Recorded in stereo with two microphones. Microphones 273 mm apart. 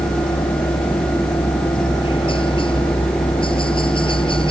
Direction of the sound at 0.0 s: 20° left (ahead or behind).